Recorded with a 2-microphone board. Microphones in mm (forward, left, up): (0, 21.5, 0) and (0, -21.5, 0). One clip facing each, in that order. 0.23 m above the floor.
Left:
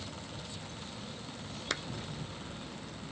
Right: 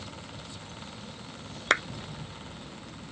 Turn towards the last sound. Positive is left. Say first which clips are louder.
# right 13 dB
turn(degrees=-55)  # may be behind; listen again after turning